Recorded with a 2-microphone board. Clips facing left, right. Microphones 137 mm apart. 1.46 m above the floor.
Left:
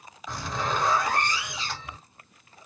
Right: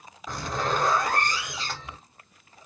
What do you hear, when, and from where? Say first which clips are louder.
0.3 s a zipper: right 2 dB; 50° right (ahead or behind), 2.5 m